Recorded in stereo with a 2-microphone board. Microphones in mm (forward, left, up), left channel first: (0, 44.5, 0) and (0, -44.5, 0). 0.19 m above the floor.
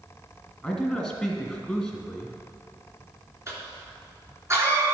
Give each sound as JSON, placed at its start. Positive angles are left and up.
{"t": 0.6, "sound": "a man speaking", "side_deg": 5, "distance_m": 1.7}
{"t": 3.5, "sound": "a cough", "side_deg": -30, "distance_m": 3.0}